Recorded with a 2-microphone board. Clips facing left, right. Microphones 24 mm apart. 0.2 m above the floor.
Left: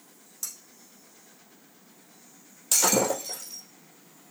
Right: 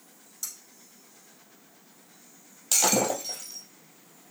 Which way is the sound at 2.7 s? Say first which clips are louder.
Left 1 dB; 15° right (ahead or behind).